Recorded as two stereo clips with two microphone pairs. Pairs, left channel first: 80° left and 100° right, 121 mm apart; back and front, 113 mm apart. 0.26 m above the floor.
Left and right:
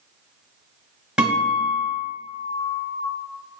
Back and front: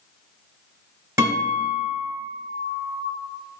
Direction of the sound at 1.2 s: 25° right.